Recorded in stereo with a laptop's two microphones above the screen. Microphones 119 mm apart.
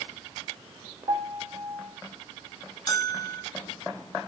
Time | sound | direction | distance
1.1 | a piano | 55° right (ahead or behind) | 1.3 m
2.9 | a bell | 35° left (ahead or behind) | 1.7 m